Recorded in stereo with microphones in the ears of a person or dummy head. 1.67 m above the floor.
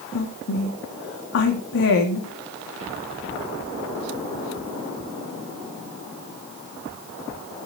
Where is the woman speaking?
65° left (ahead or behind), 2.5 m.